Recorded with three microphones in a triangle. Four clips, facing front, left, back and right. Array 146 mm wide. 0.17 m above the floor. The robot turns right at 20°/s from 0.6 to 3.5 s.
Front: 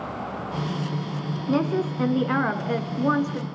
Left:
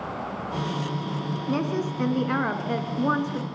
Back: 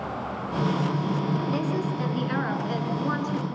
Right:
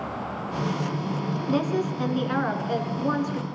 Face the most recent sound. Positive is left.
turn(degrees=45)